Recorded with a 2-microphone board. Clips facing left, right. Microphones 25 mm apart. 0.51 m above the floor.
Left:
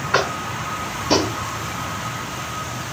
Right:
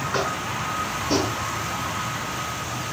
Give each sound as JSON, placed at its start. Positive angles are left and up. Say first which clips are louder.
{"t": 0.1, "sound": "tapping", "louder": "left 7 dB", "side_deg": 40, "distance_m": 1.5}